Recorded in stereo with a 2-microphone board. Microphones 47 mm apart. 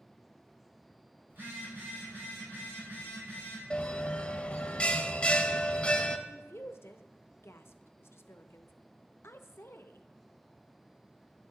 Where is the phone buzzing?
45° right (ahead or behind), 5 m.